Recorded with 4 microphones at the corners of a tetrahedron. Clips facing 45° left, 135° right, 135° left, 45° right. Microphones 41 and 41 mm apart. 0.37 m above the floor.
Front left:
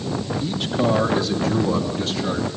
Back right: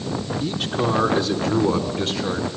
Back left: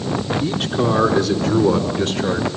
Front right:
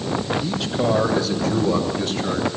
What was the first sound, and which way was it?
A man speaking, 170° right.